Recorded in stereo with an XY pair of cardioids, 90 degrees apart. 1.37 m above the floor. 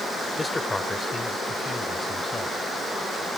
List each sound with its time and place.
0.4 s a man speaking: 25° left; by 2.6 s 30° left